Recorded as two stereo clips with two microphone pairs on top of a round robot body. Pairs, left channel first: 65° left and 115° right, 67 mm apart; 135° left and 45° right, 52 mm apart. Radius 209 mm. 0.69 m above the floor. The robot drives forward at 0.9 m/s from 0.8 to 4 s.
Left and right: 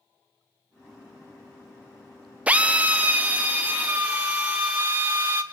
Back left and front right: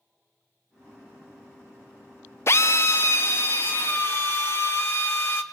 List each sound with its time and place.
2.5 s a drill: 175° left, 0.7 m; by 5.4 s straight behind, 2 m